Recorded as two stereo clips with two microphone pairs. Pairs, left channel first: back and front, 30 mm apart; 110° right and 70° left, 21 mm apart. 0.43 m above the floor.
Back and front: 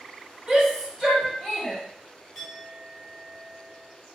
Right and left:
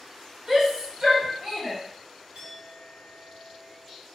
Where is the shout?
45° left, 1.4 m; by 1.8 s 75° left, 1.6 m.